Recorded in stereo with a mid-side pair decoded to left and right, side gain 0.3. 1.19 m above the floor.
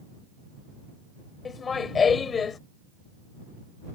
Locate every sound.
1.4 s laughter: 60° left; by 2.6 s 65° left